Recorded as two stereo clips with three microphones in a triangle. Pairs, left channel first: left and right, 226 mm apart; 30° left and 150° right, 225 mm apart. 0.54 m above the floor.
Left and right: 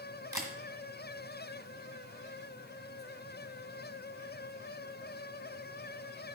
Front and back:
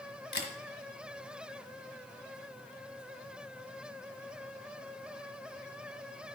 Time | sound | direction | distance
0.3 | a camera shutter | 15° right | 1.7 m